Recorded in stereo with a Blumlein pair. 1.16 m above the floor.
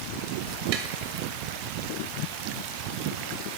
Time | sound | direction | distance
0.7 | tapping | 45° right | 1.4 m